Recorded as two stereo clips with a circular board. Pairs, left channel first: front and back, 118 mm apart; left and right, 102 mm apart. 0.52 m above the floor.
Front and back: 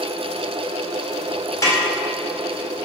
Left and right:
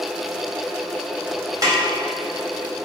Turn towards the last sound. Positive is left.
turn(degrees=-50)